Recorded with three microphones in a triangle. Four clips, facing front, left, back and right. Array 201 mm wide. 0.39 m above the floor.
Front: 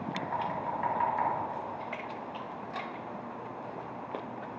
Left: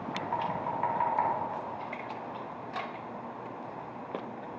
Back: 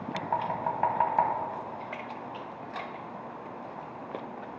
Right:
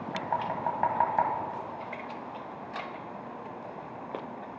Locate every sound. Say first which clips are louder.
0.1 s knocking: right 2 dB, back 4 dB; 135° right, 1.5 m